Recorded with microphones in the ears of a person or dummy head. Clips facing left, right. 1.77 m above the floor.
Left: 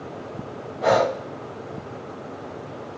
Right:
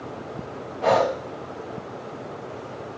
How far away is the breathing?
About 0.5 m.